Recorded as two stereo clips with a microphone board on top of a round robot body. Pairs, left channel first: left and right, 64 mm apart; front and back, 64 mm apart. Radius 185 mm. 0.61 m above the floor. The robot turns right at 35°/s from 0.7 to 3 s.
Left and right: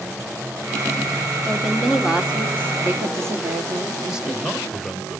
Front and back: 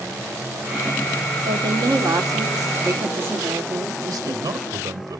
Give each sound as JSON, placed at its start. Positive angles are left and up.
{"t": 1.4, "sound": "a woman speaking", "azimuth_deg": 170, "distance_m": 2.0}
{"t": 4.0, "sound": "a man speaking", "azimuth_deg": -175, "distance_m": 3.0}